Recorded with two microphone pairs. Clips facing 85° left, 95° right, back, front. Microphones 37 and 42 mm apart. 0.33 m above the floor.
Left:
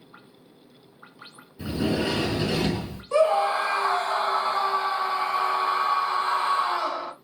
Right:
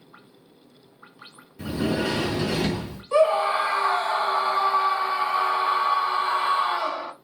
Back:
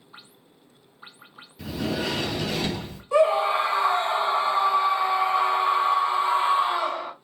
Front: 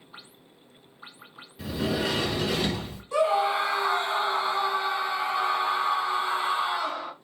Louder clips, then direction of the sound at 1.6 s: Even, even; 80° right.